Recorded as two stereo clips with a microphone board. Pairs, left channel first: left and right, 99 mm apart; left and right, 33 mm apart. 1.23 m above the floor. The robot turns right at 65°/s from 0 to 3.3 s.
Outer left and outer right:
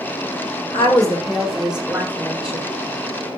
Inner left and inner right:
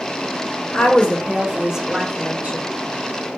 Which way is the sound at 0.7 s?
125° left.